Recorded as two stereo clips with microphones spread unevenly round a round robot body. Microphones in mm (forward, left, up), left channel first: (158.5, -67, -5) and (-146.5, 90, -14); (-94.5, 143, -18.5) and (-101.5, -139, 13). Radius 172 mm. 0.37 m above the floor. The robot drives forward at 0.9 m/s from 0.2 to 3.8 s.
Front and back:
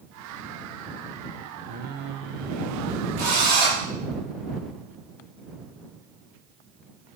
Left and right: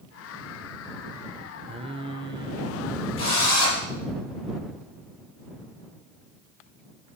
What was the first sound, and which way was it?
Singing, 160° right.